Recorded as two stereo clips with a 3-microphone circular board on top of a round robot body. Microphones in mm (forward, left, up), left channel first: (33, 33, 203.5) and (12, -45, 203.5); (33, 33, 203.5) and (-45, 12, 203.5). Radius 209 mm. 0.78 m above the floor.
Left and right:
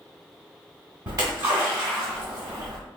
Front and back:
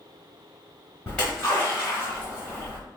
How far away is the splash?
About 0.7 m.